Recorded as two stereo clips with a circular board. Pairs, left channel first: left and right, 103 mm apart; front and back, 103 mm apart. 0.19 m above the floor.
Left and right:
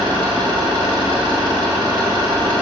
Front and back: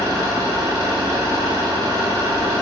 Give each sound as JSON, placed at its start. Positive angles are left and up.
{"t": 0.0, "sound": "an engine running", "azimuth_deg": -130, "distance_m": 1.0}